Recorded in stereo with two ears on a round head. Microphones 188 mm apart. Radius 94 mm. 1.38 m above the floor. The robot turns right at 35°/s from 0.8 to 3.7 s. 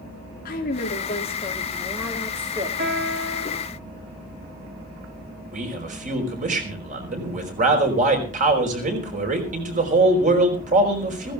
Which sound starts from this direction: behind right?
A piano, at 2.8 s.